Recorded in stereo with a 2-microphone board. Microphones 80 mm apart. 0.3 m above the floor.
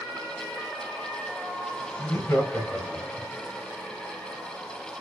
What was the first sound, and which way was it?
Laughter, 40° left (ahead or behind).